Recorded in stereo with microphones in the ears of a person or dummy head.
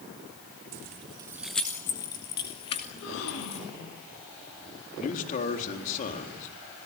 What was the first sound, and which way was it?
Keys jangling, 40° right (ahead or behind).